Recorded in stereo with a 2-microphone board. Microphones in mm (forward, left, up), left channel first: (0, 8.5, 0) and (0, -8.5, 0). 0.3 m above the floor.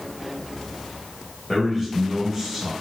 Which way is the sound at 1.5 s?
20° left (ahead or behind).